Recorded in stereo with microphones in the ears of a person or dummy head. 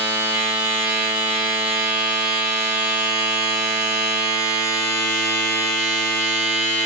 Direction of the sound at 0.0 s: 10° right (ahead or behind).